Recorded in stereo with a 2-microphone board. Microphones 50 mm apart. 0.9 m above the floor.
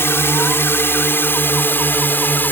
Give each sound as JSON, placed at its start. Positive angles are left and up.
{"t": 0.0, "sound": "a drone", "side_deg": 55}